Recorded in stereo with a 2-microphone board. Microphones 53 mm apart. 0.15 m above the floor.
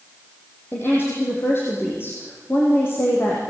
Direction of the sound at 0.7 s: 45° left (ahead or behind).